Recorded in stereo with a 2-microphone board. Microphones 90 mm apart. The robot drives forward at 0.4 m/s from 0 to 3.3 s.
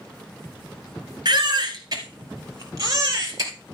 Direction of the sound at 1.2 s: 50° right (ahead or behind).